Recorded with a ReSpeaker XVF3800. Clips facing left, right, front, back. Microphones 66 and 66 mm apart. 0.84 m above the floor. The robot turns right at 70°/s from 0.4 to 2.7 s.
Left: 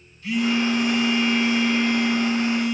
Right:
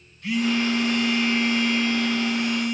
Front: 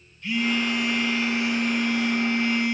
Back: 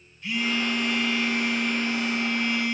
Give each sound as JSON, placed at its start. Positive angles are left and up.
{"t": 0.2, "sound": "a phone buzzing", "azimuth_deg": -100, "distance_m": 4.5}